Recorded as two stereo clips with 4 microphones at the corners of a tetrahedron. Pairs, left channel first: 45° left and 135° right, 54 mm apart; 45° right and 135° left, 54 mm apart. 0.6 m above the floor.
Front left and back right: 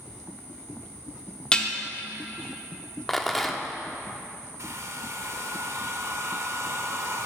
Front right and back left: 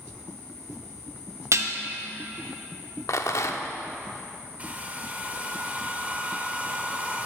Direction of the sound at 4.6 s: 165° right.